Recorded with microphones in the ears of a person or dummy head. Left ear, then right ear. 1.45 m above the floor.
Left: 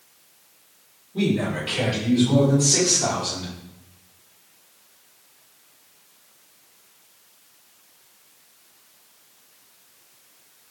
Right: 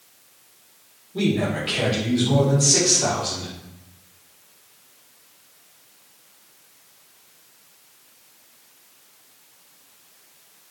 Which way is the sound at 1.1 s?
5° right (ahead or behind).